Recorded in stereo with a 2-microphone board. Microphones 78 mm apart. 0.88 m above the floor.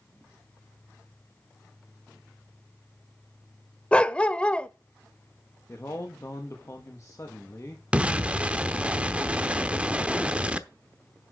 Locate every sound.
3.9 s a dog barking: 15° left (ahead or behind), 0.6 m
5.7 s a man speaking: 40° left (ahead or behind), 1.3 m
7.9 s an explosion: 15° right (ahead or behind), 0.8 m